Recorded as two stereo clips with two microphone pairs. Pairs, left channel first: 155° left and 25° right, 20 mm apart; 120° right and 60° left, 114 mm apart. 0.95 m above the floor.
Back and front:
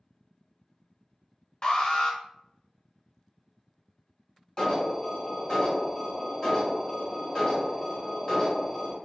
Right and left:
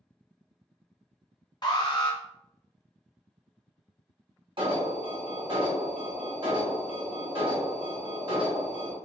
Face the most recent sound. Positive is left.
turn(degrees=100)